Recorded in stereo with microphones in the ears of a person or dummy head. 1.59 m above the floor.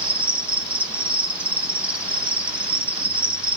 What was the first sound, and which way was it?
An insect, centre (ahead or behind).